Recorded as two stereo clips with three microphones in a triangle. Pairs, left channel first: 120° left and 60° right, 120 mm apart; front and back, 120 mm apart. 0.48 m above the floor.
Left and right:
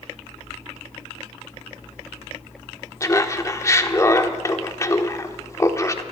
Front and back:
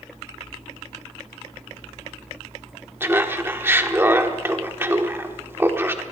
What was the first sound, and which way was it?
Laughter, 135° left.